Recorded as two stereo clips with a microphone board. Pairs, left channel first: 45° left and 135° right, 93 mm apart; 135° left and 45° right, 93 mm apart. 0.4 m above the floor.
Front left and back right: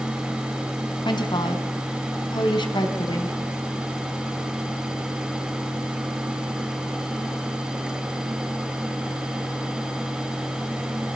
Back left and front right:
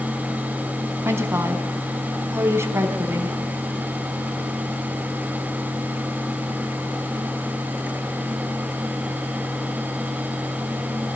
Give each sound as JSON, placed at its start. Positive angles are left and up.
{"t": 1.1, "sound": "a woman speaking", "azimuth_deg": 15, "distance_m": 3.5}